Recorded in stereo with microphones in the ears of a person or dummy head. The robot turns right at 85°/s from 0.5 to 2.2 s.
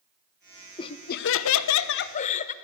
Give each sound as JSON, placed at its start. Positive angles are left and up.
{"t": 0.8, "sound": "laughter", "azimuth_deg": 25, "distance_m": 0.5}